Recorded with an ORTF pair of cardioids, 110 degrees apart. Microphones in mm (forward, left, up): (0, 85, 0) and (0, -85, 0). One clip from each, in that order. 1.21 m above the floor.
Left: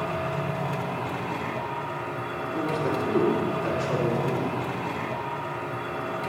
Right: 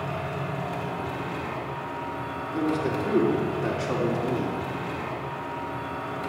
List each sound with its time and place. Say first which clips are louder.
0.0 s a machine running: left 3 dB; 15° left, 3 m
2.5 s a man speaking: right 1 dB; 25° right, 4 m